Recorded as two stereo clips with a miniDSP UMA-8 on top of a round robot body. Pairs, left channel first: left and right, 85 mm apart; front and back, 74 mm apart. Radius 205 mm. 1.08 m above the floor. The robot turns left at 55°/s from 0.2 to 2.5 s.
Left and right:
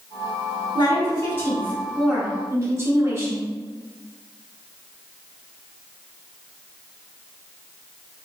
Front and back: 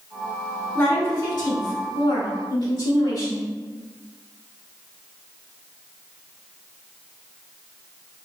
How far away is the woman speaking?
About 1.5 m.